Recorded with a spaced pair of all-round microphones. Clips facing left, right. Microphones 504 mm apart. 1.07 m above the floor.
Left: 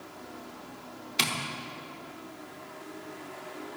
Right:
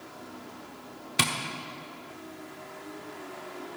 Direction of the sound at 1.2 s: 70° right (ahead or behind).